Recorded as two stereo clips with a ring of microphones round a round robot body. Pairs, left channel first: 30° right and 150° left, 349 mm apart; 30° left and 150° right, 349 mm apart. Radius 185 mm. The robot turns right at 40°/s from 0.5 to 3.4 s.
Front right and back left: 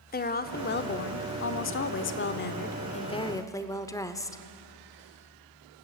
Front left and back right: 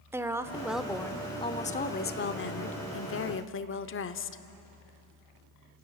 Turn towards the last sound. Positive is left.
turn(degrees=45)